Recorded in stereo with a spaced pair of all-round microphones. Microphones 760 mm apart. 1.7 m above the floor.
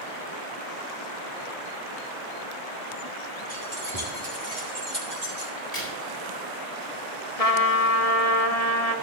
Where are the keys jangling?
30° right (ahead or behind), 5.5 m; by 5.5 s 15° right (ahead or behind), 6 m.